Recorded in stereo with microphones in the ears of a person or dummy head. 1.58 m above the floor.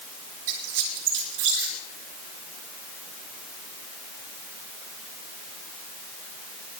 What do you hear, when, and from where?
0.5 s a squeak: 75° right (ahead or behind), 5 m